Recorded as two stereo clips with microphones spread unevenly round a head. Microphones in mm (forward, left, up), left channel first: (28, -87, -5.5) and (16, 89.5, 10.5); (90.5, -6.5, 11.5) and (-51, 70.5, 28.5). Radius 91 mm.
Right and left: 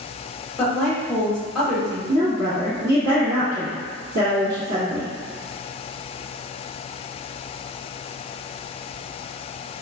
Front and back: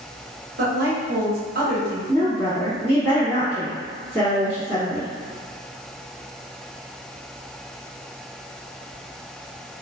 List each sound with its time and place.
0.6 s a woman speaking: 170° right, 1.0 m
2.1 s a woman speaking: 80° left, 1.2 m